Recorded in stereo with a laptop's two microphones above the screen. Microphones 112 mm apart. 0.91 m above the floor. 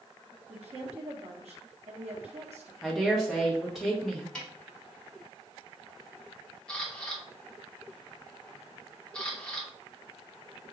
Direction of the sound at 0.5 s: 70° right (ahead or behind).